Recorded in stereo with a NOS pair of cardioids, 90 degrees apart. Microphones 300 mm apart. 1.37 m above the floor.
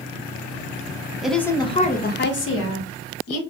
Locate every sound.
1.2 s a woman speaking: 5° right, 0.9 m; by 3.4 s 65° left, 1.8 m